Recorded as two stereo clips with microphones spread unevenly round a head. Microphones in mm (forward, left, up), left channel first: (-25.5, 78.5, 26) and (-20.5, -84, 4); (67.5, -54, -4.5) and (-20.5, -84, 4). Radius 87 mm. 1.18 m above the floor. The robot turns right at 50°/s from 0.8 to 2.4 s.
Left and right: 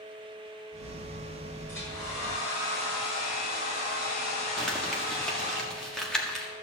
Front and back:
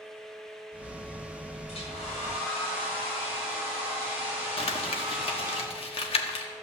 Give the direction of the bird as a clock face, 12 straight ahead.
I don't hear a bird.